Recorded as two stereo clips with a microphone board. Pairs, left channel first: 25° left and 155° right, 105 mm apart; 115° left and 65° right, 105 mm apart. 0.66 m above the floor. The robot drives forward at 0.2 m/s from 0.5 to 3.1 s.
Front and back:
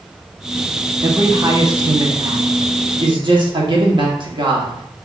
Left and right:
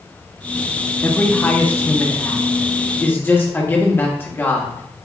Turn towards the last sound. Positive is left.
turn(degrees=175)